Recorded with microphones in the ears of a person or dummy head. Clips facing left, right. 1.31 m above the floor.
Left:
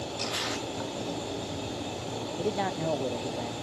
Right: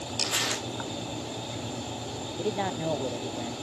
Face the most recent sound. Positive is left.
turn(degrees=5)  # may be behind; listen again after turning